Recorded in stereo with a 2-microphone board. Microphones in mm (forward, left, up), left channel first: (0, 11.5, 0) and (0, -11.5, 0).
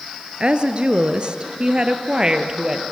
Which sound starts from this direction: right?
A woman speaking, at 0.4 s.